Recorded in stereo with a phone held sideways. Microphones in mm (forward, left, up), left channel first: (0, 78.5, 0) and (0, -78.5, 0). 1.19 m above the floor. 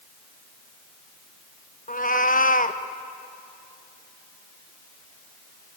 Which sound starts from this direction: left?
A cat meowing, at 1.9 s.